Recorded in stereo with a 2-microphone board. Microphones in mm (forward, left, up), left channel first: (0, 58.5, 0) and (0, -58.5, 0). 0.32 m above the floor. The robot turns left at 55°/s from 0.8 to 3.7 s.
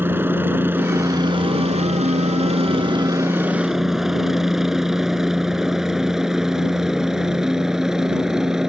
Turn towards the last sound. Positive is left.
turn(degrees=-5)  # may be behind; listen again after turning